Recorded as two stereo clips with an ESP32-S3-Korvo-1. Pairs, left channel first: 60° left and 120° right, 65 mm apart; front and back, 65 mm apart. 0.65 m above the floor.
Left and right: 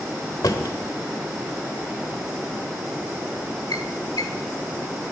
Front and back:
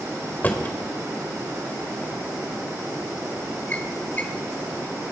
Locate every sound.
0.4 s a drawer: 60° left, 1.3 m